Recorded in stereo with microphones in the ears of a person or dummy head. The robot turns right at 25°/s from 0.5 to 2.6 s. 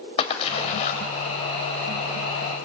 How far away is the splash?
About 2.5 m.